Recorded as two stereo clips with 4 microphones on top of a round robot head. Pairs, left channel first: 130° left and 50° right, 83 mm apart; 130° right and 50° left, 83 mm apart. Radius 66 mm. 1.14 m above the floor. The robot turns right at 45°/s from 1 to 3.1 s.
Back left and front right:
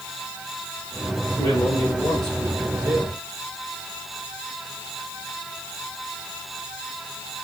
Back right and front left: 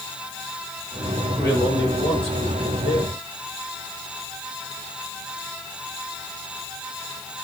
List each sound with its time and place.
1.4 s a man speaking: 170° left, 5 m; by 3.0 s 115° right, 5 m